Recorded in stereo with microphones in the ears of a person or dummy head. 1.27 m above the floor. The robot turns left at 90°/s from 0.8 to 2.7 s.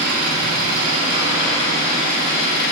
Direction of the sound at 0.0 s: 125° right.